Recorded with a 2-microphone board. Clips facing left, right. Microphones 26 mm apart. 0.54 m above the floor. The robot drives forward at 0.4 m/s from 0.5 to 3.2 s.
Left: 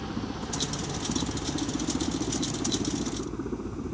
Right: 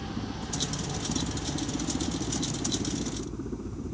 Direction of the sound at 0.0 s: 25° left (ahead or behind).